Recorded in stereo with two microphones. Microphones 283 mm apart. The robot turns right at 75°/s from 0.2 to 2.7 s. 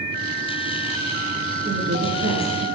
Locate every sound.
1.6 s a woman speaking: 150° right, 2.5 m; by 2.7 s 75° right, 2.5 m